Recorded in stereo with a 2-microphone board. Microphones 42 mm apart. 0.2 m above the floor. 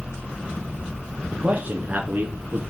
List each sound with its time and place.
1.3 s a man speaking: 30° right (ahead or behind), 3 m; by 2.6 s 50° right (ahead or behind), 2 m